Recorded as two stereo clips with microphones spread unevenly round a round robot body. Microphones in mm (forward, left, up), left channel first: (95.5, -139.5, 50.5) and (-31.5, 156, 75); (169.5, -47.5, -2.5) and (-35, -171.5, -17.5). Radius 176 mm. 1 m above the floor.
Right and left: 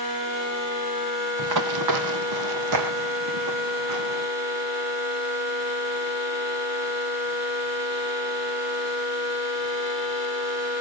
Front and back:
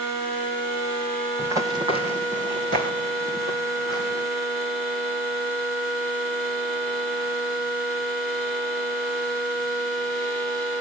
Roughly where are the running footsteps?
Behind left.